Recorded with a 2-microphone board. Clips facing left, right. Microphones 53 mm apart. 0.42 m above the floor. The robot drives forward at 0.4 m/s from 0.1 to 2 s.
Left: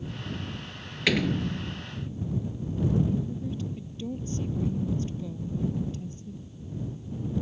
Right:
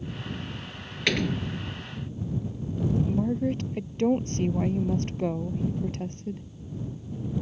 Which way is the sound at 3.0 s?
60° right (ahead or behind).